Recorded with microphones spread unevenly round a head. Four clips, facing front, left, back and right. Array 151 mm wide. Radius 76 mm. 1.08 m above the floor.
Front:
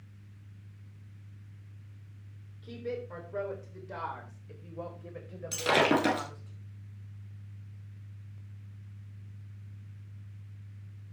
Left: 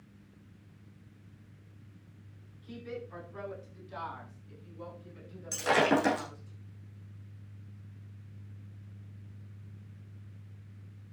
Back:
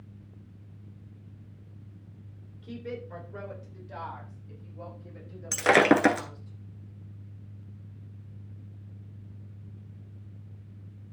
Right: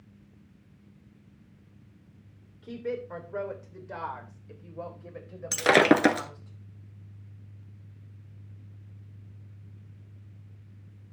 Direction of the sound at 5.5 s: 115° right.